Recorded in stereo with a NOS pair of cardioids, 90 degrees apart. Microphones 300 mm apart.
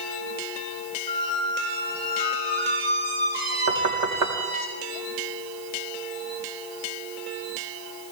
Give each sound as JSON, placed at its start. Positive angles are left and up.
{"t": 1.1, "sound": "a squeak", "azimuth_deg": -35, "distance_m": 4.0}
{"t": 3.7, "sound": "knocking", "azimuth_deg": -65, "distance_m": 2.0}